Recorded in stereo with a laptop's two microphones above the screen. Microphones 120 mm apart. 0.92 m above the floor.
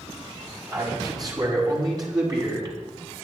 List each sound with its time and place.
0.7 s a man speaking: 35° right (ahead or behind), 7.5 m